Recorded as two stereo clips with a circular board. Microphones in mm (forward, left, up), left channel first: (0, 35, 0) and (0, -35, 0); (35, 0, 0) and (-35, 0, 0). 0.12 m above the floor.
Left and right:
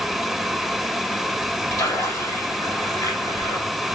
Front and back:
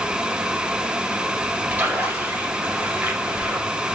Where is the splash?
115° left, 3 m.